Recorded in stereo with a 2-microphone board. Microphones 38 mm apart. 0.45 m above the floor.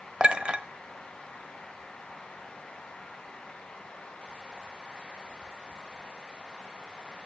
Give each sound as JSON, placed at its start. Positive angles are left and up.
{"t": 0.2, "sound": "a clink", "side_deg": -30, "distance_m": 0.9}